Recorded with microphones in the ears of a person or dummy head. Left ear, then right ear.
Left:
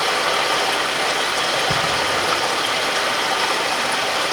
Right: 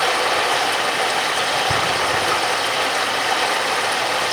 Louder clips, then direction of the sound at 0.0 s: Right 1 dB; 80° right.